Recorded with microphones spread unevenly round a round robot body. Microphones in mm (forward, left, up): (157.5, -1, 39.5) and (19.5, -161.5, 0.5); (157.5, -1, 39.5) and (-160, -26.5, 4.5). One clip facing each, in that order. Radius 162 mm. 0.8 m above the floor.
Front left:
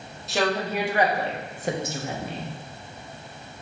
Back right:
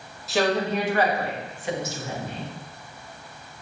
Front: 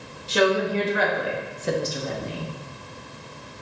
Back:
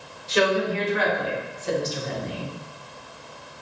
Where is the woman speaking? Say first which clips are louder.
Back right 2 dB, front 1 dB; 45° right, 1.5 m; by 2.5 s 65° left, 0.9 m.